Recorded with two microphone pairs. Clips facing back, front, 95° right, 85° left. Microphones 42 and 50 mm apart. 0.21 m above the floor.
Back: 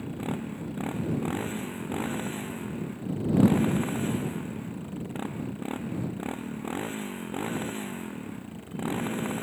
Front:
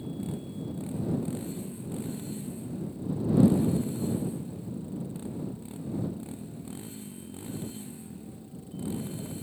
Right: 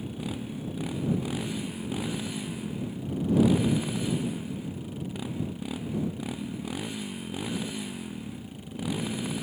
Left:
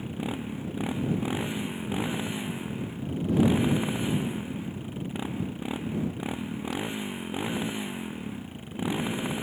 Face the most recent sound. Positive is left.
turn(degrees=150)